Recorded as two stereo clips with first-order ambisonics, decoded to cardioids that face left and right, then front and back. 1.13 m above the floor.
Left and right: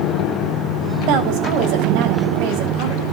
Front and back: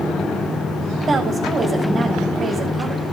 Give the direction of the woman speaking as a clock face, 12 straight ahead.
4 o'clock.